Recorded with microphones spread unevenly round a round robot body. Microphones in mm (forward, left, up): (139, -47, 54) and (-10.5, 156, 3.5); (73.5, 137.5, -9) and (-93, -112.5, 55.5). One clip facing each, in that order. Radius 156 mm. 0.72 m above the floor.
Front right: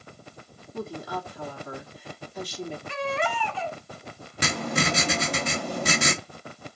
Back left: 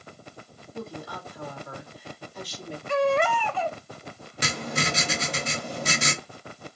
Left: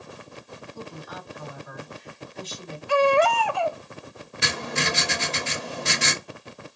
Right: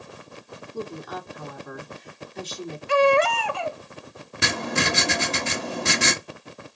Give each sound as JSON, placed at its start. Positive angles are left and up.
{"t": 0.7, "sound": "a woman speaking", "azimuth_deg": -75, "distance_m": 1.8}
{"t": 2.9, "sound": "a baby crying", "azimuth_deg": 165, "distance_m": 0.6}
{"t": 4.4, "sound": "writing", "azimuth_deg": -90, "distance_m": 0.9}